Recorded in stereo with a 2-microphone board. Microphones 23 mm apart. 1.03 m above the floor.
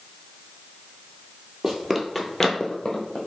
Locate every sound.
1.6 s running footsteps: 25° right (ahead or behind), 1.2 m; by 3.2 s 40° left (ahead or behind), 1.6 m